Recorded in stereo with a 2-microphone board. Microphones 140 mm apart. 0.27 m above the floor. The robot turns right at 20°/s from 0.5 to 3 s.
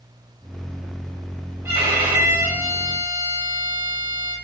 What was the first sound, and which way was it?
A violin, 20° right (ahead or behind).